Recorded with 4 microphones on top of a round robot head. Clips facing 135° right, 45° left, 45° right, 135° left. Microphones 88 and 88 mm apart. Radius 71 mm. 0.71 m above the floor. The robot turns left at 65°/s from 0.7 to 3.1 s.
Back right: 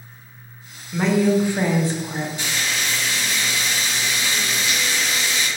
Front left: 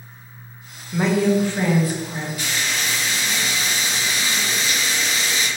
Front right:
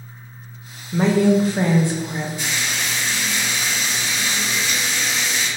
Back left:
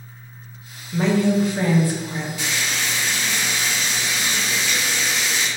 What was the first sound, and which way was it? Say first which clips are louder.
A woman speaking: even, front right 3 dB; 30° right.